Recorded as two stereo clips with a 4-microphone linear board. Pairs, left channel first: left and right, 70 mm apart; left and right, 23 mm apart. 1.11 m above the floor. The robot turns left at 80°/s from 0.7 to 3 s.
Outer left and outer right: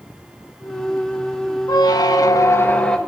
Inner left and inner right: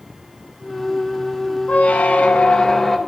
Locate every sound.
1.7 s a squeak: 115° left, 0.7 m; by 3.0 s 10° left, 0.7 m